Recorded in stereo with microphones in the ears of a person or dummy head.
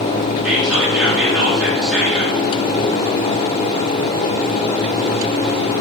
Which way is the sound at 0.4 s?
5° right (ahead or behind).